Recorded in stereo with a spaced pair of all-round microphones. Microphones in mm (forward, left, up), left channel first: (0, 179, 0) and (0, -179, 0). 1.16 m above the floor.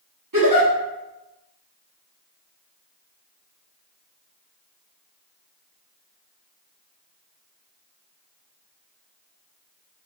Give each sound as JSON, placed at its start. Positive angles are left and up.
{"t": 0.3, "sound": "a giggle", "side_deg": -60, "distance_m": 1.3}